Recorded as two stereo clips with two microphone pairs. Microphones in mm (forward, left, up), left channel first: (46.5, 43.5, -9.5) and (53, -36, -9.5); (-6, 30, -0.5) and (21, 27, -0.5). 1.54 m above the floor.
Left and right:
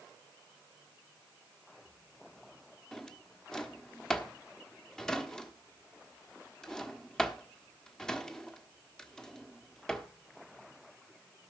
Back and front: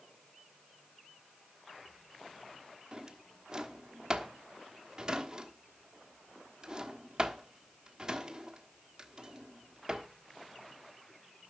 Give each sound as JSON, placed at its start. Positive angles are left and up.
{"t": 2.9, "sound": "a drawer", "azimuth_deg": 20, "distance_m": 1.1}